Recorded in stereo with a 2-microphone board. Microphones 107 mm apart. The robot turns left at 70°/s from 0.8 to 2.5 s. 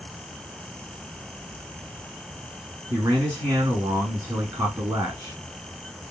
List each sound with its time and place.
2.9 s a man speaking: 30° right (ahead or behind), 1.2 m